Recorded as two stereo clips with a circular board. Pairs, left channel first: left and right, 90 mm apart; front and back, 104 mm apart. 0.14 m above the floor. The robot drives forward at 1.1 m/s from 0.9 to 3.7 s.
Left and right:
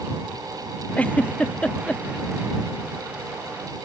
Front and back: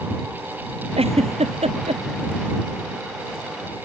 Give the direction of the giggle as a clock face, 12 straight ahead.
7 o'clock.